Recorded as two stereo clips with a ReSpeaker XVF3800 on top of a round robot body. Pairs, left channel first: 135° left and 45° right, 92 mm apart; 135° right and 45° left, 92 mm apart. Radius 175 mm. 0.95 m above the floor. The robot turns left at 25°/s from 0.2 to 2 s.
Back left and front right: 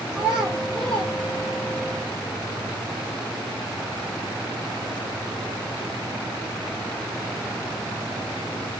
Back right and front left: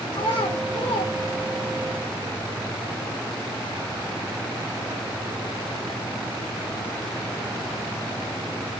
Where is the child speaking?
130° right, 0.9 m; by 1.9 s 170° right, 0.9 m.